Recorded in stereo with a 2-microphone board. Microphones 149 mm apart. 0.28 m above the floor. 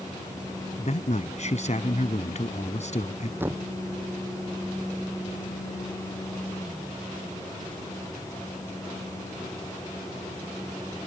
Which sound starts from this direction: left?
A man speaking, at 0.8 s.